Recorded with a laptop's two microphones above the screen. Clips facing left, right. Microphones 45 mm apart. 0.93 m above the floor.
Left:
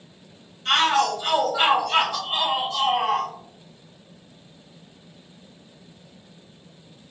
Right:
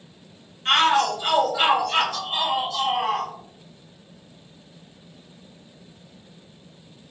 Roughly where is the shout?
Right.